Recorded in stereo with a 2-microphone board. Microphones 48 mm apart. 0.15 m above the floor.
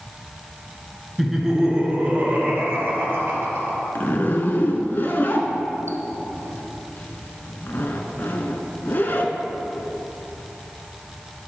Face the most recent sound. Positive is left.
turn(degrees=50)  # may be behind; listen again after turning